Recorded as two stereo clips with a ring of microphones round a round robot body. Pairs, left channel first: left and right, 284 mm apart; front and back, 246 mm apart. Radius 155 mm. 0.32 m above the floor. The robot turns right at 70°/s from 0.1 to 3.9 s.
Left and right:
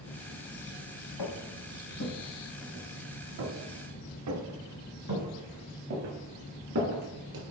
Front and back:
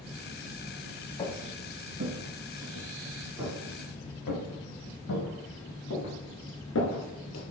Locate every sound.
1.2 s footsteps: 70° left, 2 m; by 7.4 s 45° right, 4.5 m